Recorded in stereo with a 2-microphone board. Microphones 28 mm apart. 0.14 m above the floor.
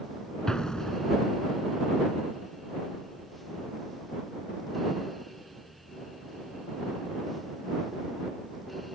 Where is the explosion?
25° left (ahead or behind).